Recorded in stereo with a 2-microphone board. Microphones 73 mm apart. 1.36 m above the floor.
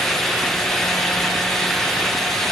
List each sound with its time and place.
Only background noise.